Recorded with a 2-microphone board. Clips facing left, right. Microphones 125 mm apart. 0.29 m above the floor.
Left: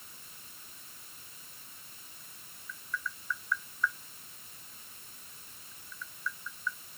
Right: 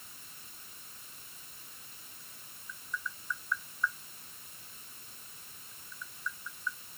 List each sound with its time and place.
2.7 s tapping: 15° right (ahead or behind)